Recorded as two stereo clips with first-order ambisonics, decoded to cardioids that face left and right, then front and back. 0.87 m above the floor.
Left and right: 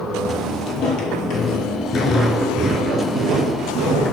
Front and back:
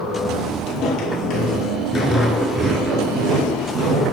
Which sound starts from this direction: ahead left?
Footsteps, at 0.7 s.